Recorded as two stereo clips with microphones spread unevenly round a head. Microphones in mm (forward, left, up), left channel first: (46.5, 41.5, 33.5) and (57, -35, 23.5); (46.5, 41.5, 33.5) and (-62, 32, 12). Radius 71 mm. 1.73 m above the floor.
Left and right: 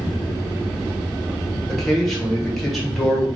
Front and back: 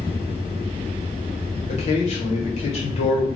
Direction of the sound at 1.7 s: 10° left.